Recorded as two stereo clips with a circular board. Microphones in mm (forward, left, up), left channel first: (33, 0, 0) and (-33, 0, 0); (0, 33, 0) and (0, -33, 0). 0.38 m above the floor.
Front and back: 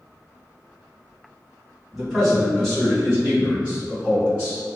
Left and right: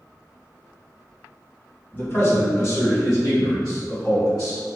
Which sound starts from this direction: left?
A man speaking, at 1.9 s.